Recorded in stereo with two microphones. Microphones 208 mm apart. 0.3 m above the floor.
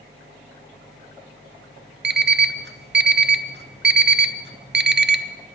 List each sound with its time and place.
2.0 s an alarm clock: 55° right (ahead or behind), 0.6 m